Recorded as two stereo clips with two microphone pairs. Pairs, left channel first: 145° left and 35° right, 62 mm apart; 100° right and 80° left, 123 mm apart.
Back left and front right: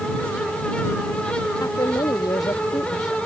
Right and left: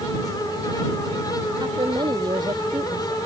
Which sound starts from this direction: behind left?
A woman speaking, at 1.6 s.